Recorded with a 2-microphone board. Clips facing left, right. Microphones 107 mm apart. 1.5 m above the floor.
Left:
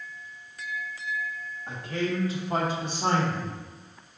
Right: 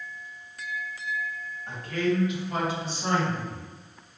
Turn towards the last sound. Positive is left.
turn(degrees=65)  # may be behind; listen again after turning